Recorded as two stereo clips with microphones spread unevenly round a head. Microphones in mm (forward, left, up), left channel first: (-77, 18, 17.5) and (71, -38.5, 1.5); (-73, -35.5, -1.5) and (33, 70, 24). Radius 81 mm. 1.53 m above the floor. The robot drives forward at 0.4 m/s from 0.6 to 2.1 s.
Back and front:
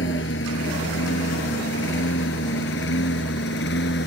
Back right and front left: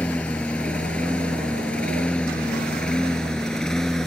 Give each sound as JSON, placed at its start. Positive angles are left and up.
{"t": 0.0, "sound": "a lawn mower", "azimuth_deg": 140}